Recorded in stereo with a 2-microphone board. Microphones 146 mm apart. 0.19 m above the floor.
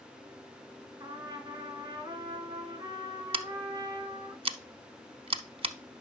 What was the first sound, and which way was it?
A trumpet, 25° right (ahead or behind).